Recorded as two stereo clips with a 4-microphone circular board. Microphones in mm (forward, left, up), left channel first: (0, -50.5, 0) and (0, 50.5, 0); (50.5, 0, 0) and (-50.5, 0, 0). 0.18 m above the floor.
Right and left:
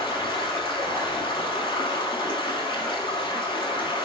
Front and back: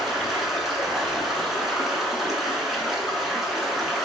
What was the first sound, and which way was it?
Running water, 90° right.